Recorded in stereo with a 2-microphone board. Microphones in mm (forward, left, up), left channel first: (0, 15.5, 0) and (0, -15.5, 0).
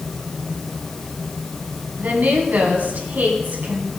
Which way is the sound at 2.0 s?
65° right (ahead or behind).